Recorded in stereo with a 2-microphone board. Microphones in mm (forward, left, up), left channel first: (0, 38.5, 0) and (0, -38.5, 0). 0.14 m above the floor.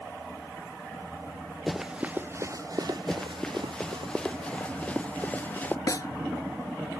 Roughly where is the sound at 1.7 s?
Centre.